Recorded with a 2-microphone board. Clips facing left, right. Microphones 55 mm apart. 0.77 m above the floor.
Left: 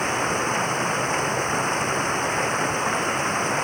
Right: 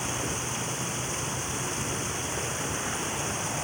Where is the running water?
50° left (ahead or behind).